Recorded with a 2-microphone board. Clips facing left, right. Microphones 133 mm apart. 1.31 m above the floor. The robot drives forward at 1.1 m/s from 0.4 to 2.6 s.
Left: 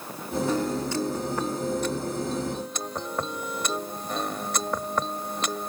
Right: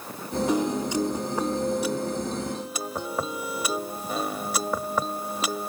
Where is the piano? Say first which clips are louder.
Right 3 dB; 15° right (ahead or behind); by 5.7 s 5° right (ahead or behind).